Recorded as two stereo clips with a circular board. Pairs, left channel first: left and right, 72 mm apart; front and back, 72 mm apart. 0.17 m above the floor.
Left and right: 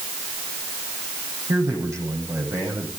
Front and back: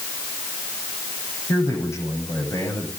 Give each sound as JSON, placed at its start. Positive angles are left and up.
{"t": 1.5, "sound": "a man speaking", "azimuth_deg": -45, "distance_m": 9.5}